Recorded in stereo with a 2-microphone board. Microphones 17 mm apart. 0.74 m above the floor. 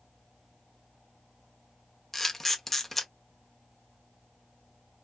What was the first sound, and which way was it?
A camera shutter, 15° left (ahead or behind).